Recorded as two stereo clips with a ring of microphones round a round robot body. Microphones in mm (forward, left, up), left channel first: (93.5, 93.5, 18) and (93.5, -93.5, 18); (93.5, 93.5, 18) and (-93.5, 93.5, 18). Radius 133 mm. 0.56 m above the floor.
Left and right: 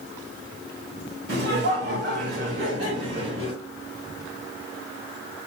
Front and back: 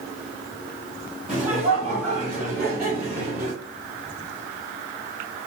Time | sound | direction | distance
1.3 | laughter | 95° right | 1.6 m